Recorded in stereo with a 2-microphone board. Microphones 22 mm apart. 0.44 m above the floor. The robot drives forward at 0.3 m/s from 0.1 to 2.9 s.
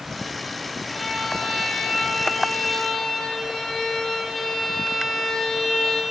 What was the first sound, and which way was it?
A violin, 10° left (ahead or behind).